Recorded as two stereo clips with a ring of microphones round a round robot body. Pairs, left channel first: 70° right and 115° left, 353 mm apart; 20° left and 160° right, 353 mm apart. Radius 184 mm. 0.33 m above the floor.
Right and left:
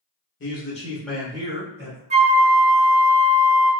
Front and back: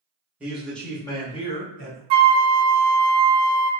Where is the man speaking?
75° right, 1.2 m; by 2.0 s 80° left, 1.4 m.